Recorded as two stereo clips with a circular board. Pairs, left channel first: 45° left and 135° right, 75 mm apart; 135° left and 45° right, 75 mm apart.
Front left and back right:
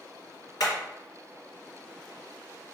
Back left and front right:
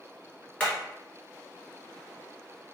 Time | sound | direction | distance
0.6 | hammering | 65° left | 1.8 m